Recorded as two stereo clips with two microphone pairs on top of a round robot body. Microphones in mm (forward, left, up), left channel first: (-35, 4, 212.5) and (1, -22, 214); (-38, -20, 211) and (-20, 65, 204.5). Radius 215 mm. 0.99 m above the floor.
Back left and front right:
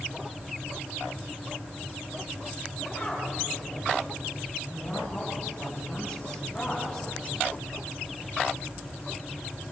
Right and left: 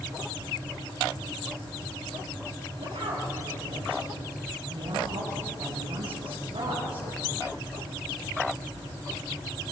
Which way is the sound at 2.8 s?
65° left.